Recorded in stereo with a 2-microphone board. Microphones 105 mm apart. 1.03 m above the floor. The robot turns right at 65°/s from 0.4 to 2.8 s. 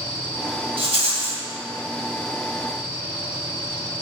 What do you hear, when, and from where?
0.8 s a rattle: 105° right, 1.6 m; by 1.4 s 60° right, 1.6 m